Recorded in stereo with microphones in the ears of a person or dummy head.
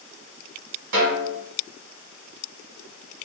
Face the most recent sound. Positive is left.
turn(degrees=-70)  # may be behind; listen again after turning